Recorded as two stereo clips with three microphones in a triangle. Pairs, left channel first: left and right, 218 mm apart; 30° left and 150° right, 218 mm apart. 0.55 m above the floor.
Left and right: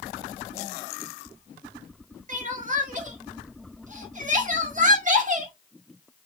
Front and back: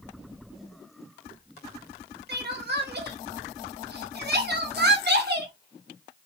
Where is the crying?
135° right, 0.7 m.